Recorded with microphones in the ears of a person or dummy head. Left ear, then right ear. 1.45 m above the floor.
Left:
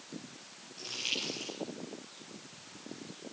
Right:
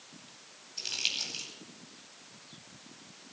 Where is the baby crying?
I don't hear a baby crying.